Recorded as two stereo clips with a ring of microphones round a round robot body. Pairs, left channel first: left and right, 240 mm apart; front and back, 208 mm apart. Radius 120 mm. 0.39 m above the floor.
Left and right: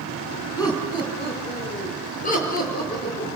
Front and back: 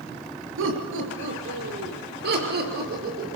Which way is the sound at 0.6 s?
165° left.